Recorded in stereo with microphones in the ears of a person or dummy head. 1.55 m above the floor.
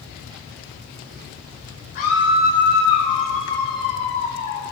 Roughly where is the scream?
Left.